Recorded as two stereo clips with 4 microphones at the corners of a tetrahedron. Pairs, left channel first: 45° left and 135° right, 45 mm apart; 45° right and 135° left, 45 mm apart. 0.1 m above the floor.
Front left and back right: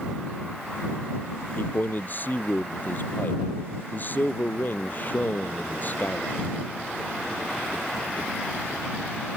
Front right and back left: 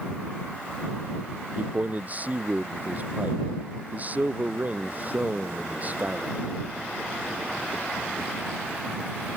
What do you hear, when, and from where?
1.6 s a man speaking: 85° left